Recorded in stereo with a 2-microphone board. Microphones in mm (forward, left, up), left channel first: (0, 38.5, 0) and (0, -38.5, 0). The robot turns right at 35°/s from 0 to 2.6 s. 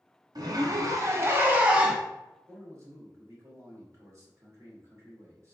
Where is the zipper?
70° right, 0.6 m; by 2.0 s 10° right, 0.6 m.